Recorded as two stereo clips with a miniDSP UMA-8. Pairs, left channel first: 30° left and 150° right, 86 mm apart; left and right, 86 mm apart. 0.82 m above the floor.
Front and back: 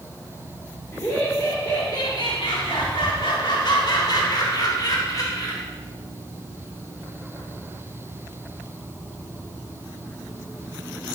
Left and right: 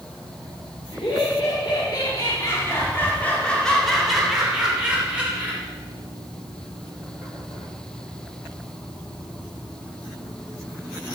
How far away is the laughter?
About 2.5 m.